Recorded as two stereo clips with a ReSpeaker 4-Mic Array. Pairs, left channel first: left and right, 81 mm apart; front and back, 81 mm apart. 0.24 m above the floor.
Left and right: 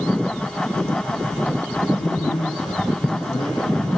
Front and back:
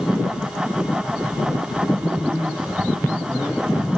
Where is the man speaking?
105° left, 8 m.